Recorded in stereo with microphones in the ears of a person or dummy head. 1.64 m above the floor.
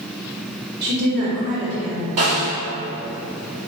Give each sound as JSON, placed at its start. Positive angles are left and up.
{"t": 0.8, "sound": "a woman speaking", "side_deg": -55, "distance_m": 1.1}
{"t": 2.2, "sound": "a snare drum", "side_deg": -25, "distance_m": 1.1}